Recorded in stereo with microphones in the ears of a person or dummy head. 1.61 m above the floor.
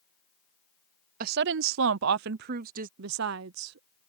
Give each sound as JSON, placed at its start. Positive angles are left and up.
{"t": 1.2, "sound": "a woman speaking", "side_deg": -50}
{"t": 3.0, "sound": "a woman speaking", "side_deg": -75}